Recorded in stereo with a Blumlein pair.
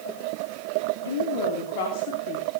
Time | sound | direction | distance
1.1 | a woman speaking | 65° left | 2 m